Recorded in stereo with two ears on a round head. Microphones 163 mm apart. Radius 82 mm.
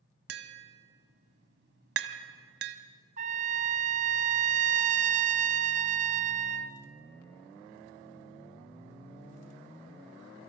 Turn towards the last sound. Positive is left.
turn(degrees=-40)  # may be behind; listen again after turning